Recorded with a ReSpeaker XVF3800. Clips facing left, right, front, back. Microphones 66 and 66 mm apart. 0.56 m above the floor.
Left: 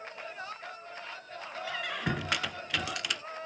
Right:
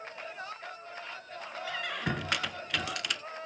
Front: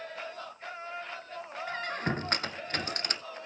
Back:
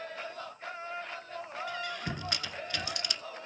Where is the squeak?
5° left, 0.6 m.